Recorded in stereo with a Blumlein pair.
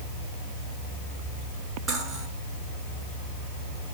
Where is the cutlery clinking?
15° right, 8 m.